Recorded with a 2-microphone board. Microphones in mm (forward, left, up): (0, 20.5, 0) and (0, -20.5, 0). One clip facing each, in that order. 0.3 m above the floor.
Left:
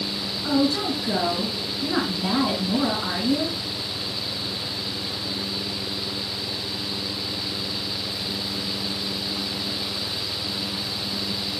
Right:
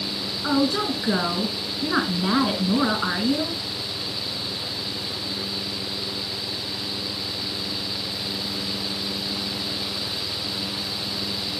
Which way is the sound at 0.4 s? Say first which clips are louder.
Even; 35° right (ahead or behind).